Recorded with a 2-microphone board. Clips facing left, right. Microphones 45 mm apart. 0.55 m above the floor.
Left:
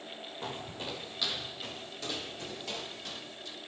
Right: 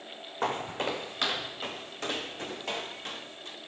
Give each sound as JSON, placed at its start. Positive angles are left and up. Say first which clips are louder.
{"t": 0.4, "sound": "footsteps", "louder": "right 10 dB", "side_deg": -65, "distance_m": 1.4}